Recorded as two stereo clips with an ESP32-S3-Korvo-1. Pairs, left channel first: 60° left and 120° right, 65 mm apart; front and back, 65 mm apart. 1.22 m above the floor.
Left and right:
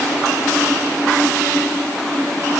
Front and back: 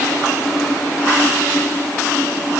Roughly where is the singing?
I don't hear singing.